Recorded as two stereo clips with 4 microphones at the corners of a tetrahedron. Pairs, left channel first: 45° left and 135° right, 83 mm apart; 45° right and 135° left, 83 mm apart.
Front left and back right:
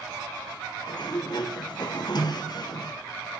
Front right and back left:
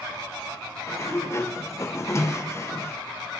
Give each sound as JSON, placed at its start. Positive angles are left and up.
{"t": 0.9, "sound": "a sliding door", "azimuth_deg": 10, "distance_m": 1.0}